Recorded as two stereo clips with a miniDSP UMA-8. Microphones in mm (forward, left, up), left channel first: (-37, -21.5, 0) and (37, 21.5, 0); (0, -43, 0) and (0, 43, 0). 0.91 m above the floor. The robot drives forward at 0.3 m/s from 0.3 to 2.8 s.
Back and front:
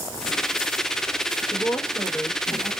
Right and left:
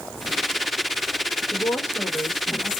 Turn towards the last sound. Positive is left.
turn(degrees=-150)